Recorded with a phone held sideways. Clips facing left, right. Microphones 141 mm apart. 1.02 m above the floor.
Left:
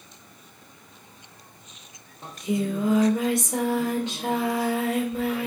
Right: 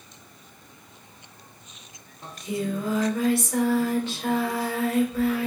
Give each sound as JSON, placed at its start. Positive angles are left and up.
{"t": 2.2, "sound": "singing", "side_deg": 20, "distance_m": 0.7}